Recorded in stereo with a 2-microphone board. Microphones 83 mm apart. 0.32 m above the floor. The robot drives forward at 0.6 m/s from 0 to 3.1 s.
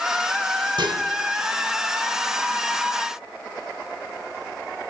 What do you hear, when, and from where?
0.8 s dishes clattering: 65° right (ahead or behind), 2 m; by 1.0 s 70° right (ahead or behind), 2 m